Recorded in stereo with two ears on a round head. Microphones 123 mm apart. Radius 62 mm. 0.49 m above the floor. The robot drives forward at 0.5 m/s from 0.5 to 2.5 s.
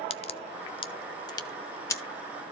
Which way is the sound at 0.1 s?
45° left (ahead or behind).